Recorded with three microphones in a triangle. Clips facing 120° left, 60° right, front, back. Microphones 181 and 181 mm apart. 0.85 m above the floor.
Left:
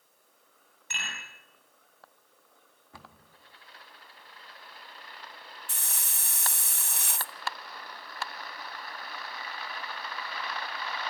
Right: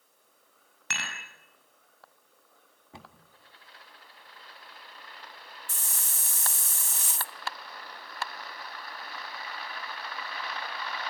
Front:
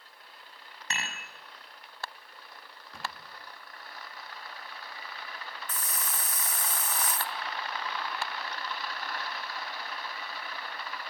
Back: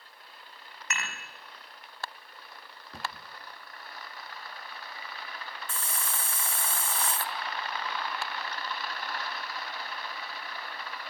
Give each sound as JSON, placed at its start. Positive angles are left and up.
{"t": 0.9, "sound": "dishes clattering", "azimuth_deg": -60, "distance_m": 5.5}
{"t": 2.9, "sound": "a cupboard door", "azimuth_deg": -125, "distance_m": 1.4}
{"t": 5.7, "sound": "a hiss", "azimuth_deg": 120, "distance_m": 0.6}